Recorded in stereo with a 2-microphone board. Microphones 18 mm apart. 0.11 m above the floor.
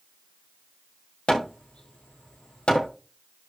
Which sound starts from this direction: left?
Hammering, at 1.3 s.